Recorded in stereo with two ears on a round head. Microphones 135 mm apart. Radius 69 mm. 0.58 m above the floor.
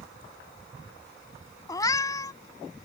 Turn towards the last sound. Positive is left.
turn(degrees=25)  # may be behind; listen again after turning